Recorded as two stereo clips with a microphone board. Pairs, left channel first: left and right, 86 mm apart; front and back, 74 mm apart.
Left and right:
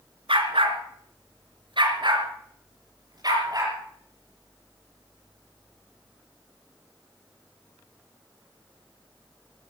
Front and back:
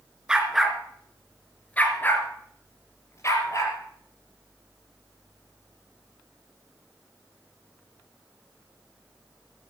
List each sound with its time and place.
0.3 s a dog barking: 100° right, 2.5 m; by 3.7 s 45° right, 4.5 m